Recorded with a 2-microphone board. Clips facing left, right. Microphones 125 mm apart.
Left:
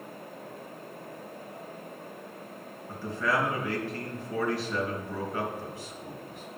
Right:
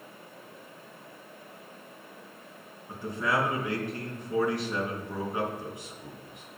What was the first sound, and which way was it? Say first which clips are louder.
A man speaking: even; 20° right (ahead or behind).